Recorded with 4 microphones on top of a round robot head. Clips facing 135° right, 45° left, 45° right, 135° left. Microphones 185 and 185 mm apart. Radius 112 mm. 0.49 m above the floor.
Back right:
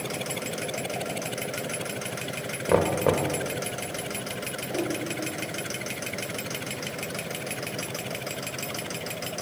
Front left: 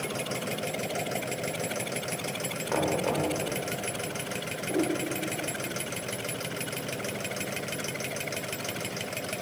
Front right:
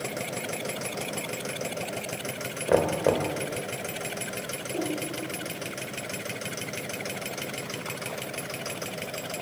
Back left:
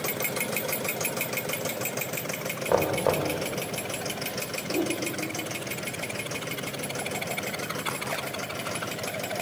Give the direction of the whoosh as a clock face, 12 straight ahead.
8 o'clock.